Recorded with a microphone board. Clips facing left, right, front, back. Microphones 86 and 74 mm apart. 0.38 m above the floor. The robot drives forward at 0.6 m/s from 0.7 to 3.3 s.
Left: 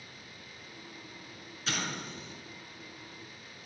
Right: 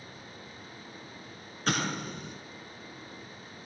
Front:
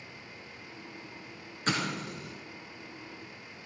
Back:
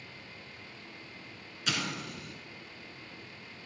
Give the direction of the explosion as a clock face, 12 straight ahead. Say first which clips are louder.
Right 6 dB, front 4 dB; 2 o'clock.